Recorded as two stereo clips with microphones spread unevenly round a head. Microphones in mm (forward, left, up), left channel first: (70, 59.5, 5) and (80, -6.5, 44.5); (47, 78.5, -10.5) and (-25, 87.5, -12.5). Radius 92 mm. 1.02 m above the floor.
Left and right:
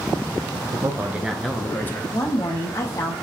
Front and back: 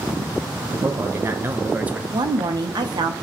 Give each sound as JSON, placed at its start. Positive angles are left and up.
{"t": 0.7, "sound": "a man speaking", "azimuth_deg": -150, "distance_m": 0.6}
{"t": 2.1, "sound": "a woman speaking", "azimuth_deg": 150, "distance_m": 0.7}